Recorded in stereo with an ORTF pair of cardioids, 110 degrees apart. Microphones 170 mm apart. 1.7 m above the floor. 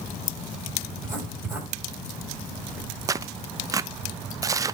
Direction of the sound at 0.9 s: 15° right.